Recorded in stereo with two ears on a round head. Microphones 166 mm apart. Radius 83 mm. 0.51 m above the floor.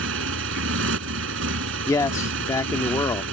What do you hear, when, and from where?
0.0 s a motorcycle: 85° right
1.9 s a man speaking: 15° left (ahead or behind)